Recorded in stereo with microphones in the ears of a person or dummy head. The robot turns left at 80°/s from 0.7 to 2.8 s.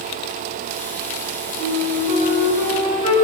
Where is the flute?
130° left, 9 m; by 3.1 s 35° left, 9 m.